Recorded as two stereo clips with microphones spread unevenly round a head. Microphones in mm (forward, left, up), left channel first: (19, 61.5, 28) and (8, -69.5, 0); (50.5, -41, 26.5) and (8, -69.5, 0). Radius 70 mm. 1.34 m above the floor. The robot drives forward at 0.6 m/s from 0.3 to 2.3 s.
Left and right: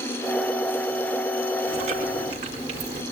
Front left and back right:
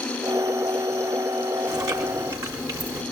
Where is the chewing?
145° right, 2.5 m; by 3.0 s 150° right, 3 m.